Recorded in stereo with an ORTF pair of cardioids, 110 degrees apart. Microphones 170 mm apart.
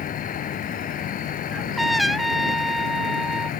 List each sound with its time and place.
0.0 s an insect: 55° left
1.5 s a trumpet: straight ahead